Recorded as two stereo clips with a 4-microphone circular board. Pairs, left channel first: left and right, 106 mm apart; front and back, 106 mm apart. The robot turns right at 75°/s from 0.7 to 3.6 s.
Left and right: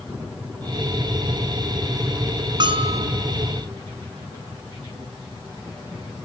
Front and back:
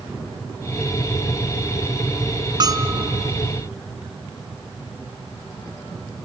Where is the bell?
135° right, 0.7 m; by 3.0 s 100° right, 0.7 m.